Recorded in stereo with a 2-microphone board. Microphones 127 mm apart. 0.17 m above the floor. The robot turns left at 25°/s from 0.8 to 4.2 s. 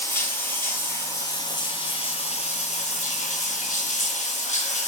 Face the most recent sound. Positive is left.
turn(degrees=80)